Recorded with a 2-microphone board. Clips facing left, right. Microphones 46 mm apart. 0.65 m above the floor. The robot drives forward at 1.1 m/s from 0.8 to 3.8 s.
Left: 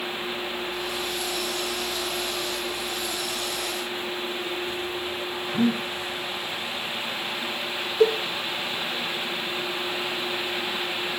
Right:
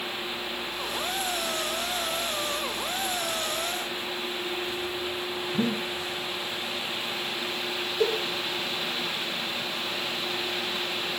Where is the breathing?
25° left (ahead or behind), 5 m.